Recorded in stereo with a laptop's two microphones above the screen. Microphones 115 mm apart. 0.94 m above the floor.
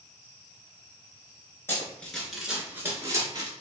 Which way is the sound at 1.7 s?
20° left (ahead or behind).